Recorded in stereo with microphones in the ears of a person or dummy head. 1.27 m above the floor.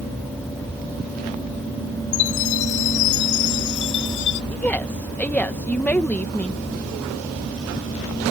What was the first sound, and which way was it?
A chime, 65° left (ahead or behind).